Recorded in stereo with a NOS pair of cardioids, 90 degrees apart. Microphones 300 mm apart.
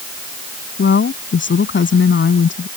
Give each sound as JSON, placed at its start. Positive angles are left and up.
{"t": 0.8, "sound": "a woman speaking", "azimuth_deg": 40}